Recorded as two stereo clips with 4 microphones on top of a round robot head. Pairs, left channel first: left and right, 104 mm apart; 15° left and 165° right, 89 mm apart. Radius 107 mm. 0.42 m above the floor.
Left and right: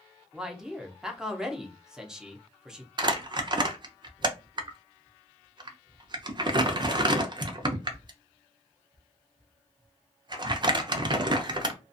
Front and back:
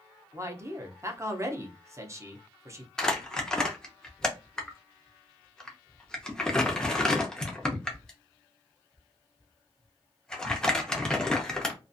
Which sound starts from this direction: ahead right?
Crumpling, at 3.0 s.